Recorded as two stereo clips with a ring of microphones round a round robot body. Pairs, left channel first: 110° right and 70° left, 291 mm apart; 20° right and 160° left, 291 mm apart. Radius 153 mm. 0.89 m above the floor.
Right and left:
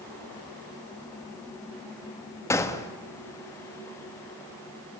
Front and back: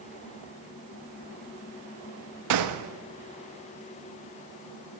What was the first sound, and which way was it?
A gunshot, 165° left.